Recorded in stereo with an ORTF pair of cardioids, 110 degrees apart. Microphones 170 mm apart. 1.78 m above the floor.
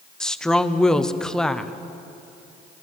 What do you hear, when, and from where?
0.2 s a woman speaking: 5° left, 1.0 m